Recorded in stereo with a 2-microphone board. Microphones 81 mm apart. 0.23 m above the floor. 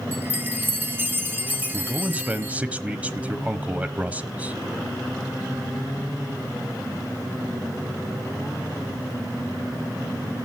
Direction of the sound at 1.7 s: 20° right (ahead or behind).